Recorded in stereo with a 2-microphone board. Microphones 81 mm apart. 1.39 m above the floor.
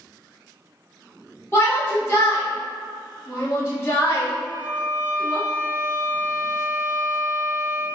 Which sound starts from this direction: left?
A shout, at 1.5 s.